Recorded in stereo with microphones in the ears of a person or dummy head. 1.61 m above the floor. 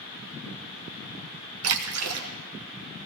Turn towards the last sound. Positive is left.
turn(degrees=-80)